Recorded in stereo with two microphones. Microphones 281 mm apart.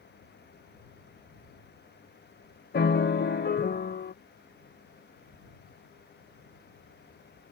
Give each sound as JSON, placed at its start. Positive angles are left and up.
{"t": 2.7, "sound": "a piano", "side_deg": 35}